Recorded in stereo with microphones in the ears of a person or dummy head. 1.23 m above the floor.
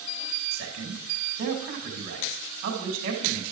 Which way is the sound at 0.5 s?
45° right (ahead or behind).